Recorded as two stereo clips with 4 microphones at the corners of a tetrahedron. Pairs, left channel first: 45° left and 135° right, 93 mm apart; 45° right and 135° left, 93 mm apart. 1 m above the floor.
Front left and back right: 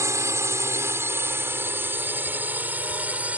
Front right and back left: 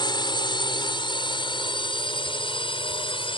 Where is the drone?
80° right; by 3.4 s 60° right.